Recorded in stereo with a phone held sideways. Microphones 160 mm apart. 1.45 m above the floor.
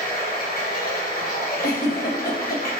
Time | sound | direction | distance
0.0 | running water | 65° left (ahead or behind) | 1.1 m
1.6 | a giggle | 70° left (ahead or behind) | 1.0 m